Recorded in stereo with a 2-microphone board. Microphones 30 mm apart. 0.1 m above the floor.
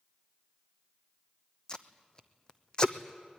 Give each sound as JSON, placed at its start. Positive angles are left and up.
{"t": 1.7, "sound": "tape being pulled", "side_deg": 25, "distance_m": 0.9}